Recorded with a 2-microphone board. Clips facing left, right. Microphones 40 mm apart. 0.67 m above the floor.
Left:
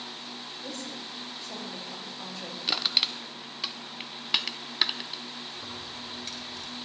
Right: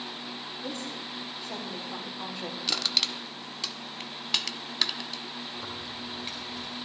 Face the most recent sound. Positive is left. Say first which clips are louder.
# right 2 dB
turn(degrees=-25)  # may be behind; listen again after turning